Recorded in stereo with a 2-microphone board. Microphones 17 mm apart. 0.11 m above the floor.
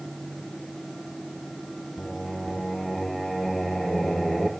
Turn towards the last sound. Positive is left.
turn(degrees=35)  # may be behind; listen again after turning